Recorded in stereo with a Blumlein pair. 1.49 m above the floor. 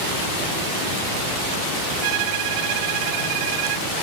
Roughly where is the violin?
Ahead right.